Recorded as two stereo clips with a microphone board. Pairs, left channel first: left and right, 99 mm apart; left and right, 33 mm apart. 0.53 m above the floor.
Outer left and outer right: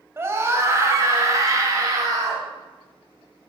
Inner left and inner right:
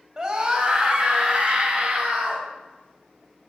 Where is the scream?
25° right (ahead or behind), 2.5 m; by 2.4 s 40° right (ahead or behind), 4.5 m.